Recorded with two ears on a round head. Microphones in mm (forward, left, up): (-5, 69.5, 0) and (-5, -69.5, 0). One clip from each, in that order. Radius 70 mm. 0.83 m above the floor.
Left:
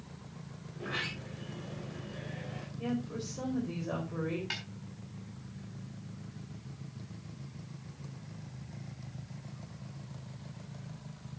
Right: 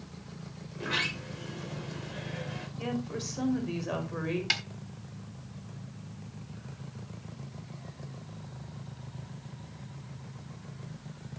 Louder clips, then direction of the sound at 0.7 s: Right 6 dB; 80° right.